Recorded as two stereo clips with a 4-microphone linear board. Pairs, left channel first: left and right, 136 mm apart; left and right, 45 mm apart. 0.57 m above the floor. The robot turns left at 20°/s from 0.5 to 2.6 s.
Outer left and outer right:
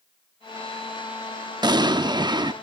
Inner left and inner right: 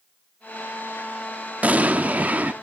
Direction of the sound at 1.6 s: 30° right (ahead or behind).